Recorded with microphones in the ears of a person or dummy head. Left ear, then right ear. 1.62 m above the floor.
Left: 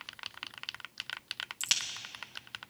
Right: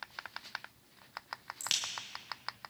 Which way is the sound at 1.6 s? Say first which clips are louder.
Left 3 dB; 15° left (ahead or behind).